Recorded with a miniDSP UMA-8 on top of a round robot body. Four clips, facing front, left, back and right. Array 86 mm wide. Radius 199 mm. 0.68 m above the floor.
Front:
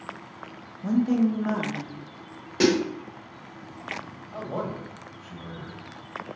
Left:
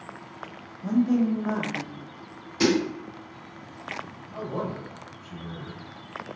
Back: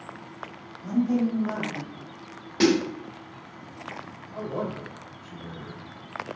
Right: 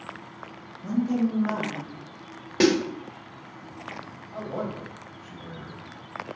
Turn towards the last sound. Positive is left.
turn(degrees=-15)